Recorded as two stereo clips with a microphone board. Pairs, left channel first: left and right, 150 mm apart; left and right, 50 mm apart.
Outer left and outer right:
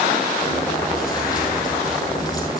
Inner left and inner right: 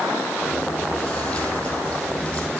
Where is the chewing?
25° left (ahead or behind), 4 m.